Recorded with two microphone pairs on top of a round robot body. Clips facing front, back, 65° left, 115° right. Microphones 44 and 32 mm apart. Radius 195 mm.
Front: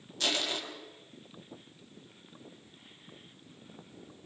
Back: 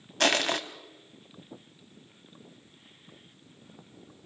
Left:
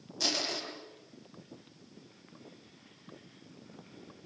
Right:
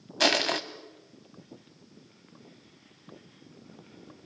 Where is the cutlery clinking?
I don't hear cutlery clinking.